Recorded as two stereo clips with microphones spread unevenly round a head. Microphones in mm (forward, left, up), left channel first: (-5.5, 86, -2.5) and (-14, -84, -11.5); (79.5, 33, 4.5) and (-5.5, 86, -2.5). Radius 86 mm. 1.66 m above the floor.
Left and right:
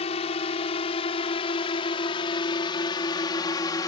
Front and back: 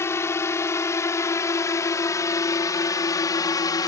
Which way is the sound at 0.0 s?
30° left.